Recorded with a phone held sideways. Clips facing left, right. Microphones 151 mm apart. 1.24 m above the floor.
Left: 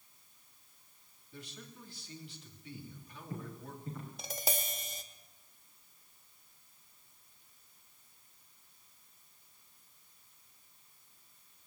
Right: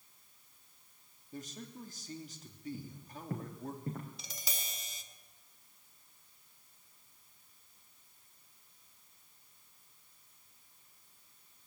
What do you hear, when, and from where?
1.3 s a man speaking: 40° right (ahead or behind), 3 m
2.7 s footsteps: 60° right (ahead or behind), 4 m; by 4.1 s 55° right (ahead or behind), 3.5 m
4.2 s tapping: 55° left (ahead or behind), 1.8 m